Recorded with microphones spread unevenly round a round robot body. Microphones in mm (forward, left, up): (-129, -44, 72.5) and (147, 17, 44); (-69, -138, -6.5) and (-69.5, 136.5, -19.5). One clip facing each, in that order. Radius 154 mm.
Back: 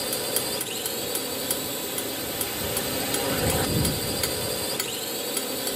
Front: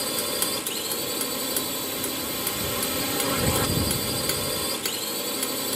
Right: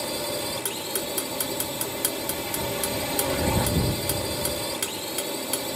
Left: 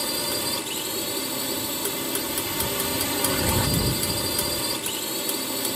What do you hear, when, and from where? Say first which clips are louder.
0.0 s a drone: even, even; 70° left